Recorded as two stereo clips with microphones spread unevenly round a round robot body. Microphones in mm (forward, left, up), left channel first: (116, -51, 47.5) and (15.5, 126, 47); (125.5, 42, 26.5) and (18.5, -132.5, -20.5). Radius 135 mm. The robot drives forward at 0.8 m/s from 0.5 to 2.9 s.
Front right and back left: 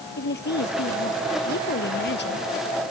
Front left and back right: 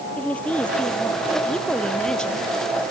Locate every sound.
0.2 s a woman speaking: 25° right; by 2.5 s 30° right